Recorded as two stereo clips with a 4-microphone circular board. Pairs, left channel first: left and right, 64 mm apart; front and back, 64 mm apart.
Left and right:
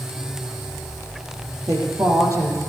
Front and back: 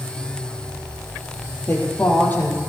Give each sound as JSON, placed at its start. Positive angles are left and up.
{"t": 1.7, "sound": "a woman speaking", "azimuth_deg": -60, "distance_m": 4.0}